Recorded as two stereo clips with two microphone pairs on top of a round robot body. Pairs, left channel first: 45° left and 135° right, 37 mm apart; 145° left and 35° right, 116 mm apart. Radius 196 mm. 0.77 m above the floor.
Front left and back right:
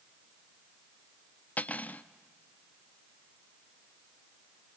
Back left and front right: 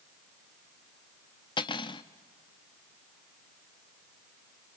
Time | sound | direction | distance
1.6 | cutlery clinking | 95° left | 0.6 m